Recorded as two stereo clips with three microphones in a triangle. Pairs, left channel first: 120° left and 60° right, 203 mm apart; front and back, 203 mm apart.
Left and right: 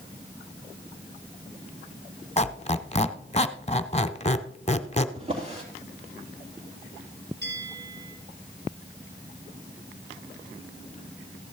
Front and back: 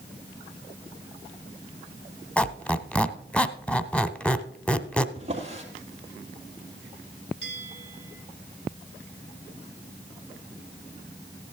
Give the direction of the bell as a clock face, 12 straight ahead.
1 o'clock.